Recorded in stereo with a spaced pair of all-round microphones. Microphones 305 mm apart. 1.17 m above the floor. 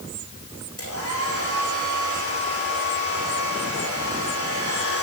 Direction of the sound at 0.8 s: 55° left (ahead or behind).